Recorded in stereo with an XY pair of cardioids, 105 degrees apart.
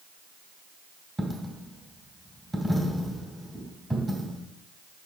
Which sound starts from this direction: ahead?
A dropped coin, at 1.2 s.